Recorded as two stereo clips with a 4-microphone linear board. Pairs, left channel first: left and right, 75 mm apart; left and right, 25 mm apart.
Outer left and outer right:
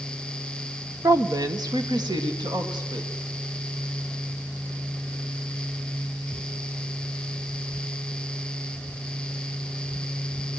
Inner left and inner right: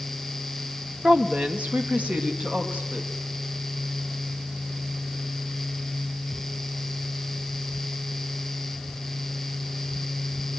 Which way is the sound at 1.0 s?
50° right (ahead or behind).